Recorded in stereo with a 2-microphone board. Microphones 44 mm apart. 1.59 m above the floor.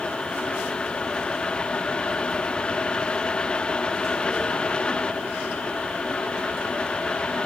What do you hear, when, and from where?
Only background noise.